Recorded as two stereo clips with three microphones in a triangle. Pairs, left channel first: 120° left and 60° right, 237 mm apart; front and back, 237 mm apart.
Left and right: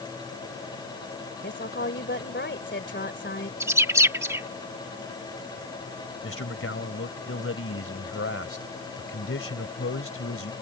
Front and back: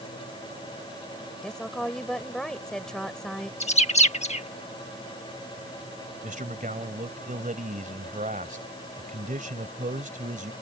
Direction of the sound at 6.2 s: 130° left.